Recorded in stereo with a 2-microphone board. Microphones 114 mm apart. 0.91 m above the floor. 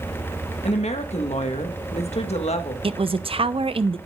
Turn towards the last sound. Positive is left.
turn(degrees=-55)  # may be behind; listen again after turning